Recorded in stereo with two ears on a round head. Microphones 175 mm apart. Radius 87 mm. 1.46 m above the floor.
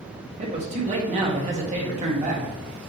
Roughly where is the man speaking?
Right.